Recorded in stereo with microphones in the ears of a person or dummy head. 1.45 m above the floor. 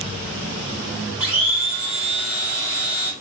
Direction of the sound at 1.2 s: 10° right (ahead or behind).